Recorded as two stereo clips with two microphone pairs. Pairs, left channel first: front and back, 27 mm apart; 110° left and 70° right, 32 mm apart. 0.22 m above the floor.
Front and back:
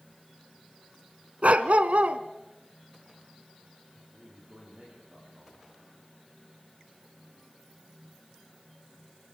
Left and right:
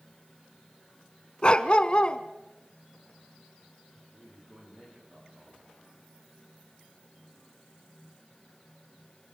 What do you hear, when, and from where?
1.4 s a dog barking: 165° left, 0.8 m
3.9 s a man speaking: 125° right, 10 m